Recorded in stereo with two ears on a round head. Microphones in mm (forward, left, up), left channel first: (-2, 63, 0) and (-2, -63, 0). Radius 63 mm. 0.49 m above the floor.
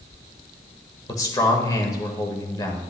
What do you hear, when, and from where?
1.1 s a man speaking: 25° left (ahead or behind), 1.5 m